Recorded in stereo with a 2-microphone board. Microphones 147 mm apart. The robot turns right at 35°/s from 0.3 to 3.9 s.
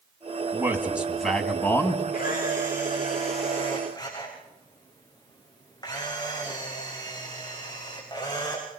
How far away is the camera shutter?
About 6.5 m.